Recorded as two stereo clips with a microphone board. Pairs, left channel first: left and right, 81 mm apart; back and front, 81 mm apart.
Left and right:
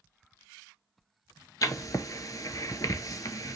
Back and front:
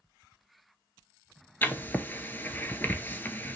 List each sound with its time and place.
1.6 s writing: 120° left, 0.5 m